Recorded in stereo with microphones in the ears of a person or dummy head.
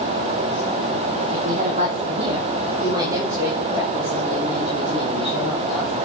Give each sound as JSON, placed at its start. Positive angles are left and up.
{"t": 1.3, "sound": "a woman speaking", "side_deg": -50, "distance_m": 1.9}